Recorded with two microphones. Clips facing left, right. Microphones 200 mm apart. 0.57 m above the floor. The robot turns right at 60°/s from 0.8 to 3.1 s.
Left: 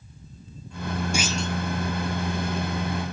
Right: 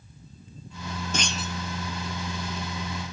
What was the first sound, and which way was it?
A clunk, 10° left (ahead or behind).